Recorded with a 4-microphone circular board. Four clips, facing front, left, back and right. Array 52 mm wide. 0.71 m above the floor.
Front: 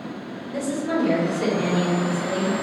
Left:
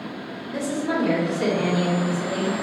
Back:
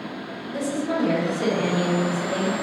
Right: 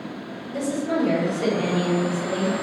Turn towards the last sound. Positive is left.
turn(degrees=75)